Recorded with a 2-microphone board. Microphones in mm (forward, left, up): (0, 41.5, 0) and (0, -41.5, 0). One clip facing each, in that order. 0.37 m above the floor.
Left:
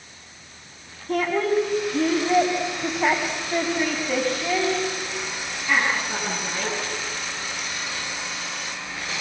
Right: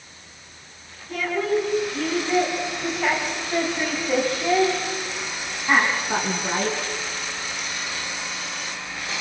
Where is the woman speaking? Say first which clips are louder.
Left 2 dB; 55° left (ahead or behind), 4 m; by 6.8 s 40° right (ahead or behind), 5.5 m.